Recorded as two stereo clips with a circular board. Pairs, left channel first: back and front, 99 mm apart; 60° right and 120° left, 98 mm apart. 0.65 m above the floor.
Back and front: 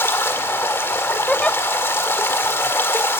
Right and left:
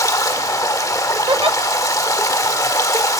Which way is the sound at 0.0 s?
115° right.